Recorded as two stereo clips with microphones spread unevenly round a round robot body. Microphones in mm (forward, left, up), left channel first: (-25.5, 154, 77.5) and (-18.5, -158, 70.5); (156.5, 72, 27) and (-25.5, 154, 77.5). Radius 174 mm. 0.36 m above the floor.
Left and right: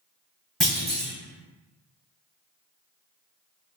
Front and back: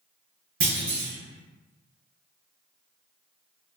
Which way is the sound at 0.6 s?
Straight behind.